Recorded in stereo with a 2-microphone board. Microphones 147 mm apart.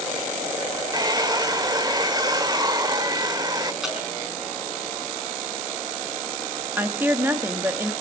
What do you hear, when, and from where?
0.9 s a hair dryer: 25° right (ahead or behind), 1.1 m
3.8 s dripping: 5° right (ahead or behind), 4.5 m
6.8 s a woman speaking: 15° right (ahead or behind), 1.2 m